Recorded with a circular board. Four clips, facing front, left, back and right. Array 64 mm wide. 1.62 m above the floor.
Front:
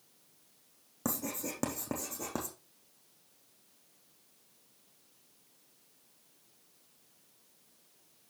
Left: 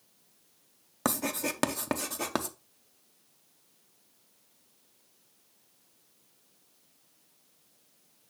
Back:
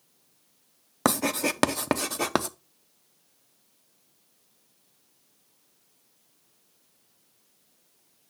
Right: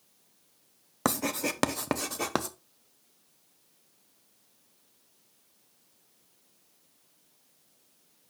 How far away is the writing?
About 0.5 m.